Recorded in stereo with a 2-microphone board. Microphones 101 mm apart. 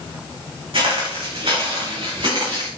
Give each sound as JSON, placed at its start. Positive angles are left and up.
{"t": 0.7, "sound": "footsteps", "side_deg": -65, "distance_m": 4.5}